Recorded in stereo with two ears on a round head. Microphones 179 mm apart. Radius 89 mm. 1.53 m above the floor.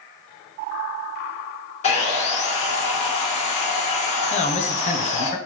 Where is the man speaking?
35° left (ahead or behind), 0.5 m.